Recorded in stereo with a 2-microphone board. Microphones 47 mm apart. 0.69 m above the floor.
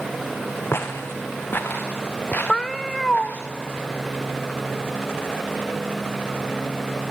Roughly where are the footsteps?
Left.